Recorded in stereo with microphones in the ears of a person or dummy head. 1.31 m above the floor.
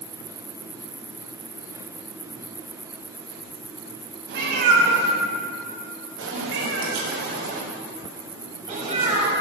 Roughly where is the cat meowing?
Right.